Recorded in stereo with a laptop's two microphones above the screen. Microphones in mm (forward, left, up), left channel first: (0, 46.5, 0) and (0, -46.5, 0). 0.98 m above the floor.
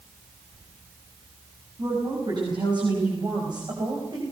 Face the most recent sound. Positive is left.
turn(degrees=-50)  # may be behind; listen again after turning